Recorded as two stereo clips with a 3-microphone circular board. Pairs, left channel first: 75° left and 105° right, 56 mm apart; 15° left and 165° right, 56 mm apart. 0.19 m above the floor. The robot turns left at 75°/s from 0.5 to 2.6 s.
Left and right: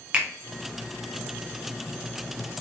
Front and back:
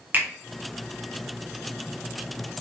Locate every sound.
0.1 s a finger snap: 160° right, 0.9 m